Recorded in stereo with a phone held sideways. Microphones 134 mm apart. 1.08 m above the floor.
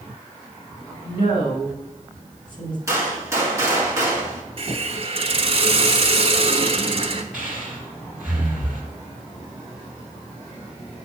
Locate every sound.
1.0 s a woman speaking: 35° left (ahead or behind), 3 m
2.9 s a gunshot: 20° right (ahead or behind), 1.9 m
4.6 s a hiss: 45° right (ahead or behind), 0.9 m
7.3 s breathing: 5° right (ahead or behind), 3.5 m